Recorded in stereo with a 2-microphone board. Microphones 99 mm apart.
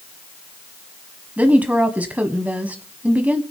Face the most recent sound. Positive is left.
turn(degrees=-15)  # may be behind; listen again after turning